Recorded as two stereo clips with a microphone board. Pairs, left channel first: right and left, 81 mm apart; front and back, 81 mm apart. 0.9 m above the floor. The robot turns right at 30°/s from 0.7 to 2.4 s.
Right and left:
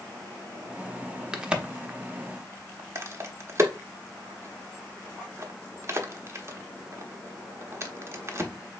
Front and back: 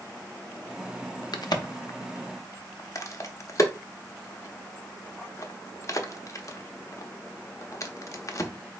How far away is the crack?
About 0.6 m.